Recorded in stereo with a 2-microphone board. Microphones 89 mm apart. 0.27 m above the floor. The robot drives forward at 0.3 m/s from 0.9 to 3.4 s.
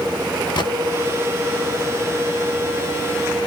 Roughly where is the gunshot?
Left.